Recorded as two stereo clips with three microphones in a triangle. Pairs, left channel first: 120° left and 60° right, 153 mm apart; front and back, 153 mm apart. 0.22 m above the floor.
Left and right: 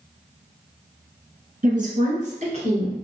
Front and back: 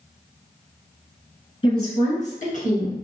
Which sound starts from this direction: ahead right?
A woman speaking, at 1.6 s.